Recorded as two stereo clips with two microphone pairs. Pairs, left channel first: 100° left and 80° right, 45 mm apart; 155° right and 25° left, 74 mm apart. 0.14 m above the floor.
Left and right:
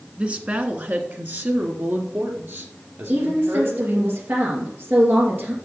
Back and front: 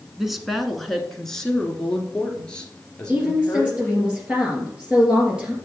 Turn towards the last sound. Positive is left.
turn(degrees=-50)